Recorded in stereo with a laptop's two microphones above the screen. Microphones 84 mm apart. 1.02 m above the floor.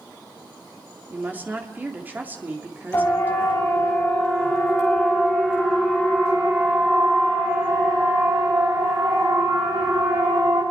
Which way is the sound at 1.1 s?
20° right (ahead or behind).